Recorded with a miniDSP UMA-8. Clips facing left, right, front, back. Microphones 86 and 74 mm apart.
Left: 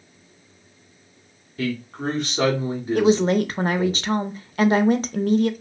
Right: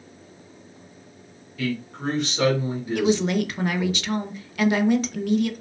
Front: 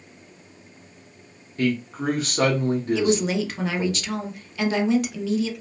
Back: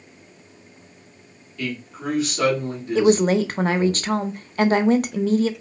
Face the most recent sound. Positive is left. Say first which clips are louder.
# left 4 dB, back 10 dB
turn(degrees=140)